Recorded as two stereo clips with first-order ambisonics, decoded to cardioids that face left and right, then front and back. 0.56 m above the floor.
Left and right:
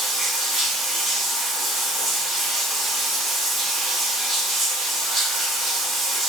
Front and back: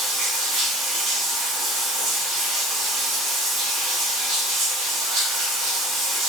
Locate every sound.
0.0 s running water: 170° right, 1.2 m